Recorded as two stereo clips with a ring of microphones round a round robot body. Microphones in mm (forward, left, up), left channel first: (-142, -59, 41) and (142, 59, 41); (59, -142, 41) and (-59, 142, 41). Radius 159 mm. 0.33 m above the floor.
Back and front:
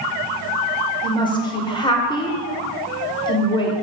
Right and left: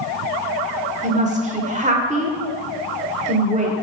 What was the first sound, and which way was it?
A woman speaking, 145° left.